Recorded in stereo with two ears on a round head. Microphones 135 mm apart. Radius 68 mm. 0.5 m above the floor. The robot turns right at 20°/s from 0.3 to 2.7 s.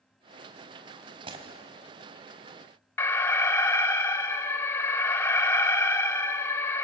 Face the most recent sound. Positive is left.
turn(degrees=15)  # may be behind; listen again after turning